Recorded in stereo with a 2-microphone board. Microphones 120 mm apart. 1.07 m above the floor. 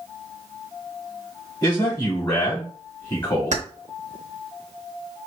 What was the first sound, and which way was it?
A man speaking, 40° left (ahead or behind).